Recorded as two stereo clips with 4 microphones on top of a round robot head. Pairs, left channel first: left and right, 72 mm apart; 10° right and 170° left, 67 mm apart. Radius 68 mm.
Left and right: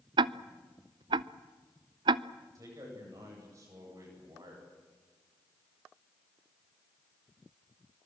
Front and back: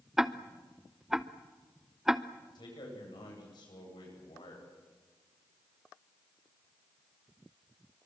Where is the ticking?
105° right, 0.5 m.